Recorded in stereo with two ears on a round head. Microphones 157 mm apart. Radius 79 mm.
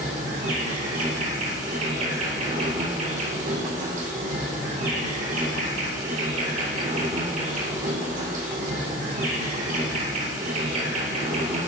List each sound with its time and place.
0.0 s an insect: 45° right (ahead or behind), 1.1 m